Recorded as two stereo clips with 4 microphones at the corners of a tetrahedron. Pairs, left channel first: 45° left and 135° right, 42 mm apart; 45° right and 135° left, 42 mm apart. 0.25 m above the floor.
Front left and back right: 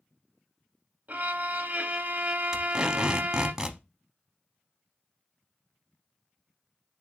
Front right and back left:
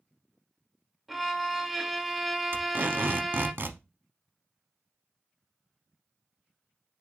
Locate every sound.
1.1 s a violin: 140° right, 0.6 m
2.5 s tape being pulled: 150° left, 0.7 m